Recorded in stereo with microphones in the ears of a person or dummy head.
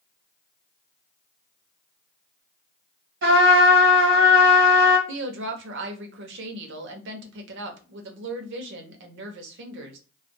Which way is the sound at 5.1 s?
75° right (ahead or behind).